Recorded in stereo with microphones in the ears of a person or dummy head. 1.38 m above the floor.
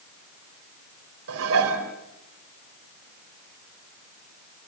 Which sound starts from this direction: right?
Dishes clattering, at 1.3 s.